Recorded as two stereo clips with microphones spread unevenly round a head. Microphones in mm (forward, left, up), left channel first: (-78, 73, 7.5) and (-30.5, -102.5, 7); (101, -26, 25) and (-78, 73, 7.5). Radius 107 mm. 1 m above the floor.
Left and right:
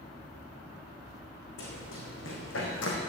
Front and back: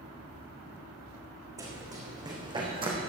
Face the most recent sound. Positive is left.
turn(degrees=85)